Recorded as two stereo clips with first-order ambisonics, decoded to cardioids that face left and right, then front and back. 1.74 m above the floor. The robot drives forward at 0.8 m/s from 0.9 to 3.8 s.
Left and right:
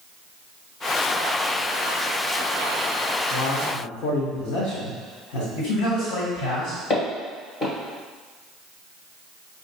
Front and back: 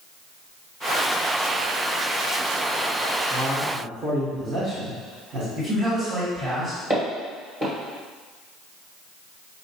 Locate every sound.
3.3 s a man speaking: 100° left, 0.9 m; by 5.5 s 125° left, 1.1 m
5.5 s a man speaking: 110° left, 1.8 m
6.9 s footsteps: 130° left, 1.8 m